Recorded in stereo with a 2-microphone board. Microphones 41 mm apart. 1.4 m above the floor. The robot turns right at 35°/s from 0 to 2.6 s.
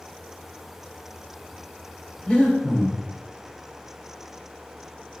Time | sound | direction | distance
2.3 | breathing | 25° left (ahead or behind) | 2 m